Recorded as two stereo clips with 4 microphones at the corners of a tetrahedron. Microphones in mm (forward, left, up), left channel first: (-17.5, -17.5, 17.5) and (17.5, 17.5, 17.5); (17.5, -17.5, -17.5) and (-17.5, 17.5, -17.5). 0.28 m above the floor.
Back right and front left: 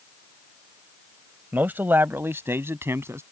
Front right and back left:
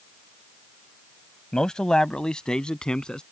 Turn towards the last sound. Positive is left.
turn(degrees=25)